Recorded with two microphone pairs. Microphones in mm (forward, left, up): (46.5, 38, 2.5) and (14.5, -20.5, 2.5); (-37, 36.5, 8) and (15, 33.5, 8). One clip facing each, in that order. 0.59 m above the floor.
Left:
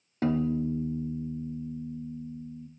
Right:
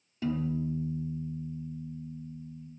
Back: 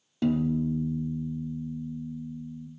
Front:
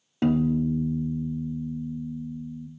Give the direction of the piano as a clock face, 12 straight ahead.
11 o'clock.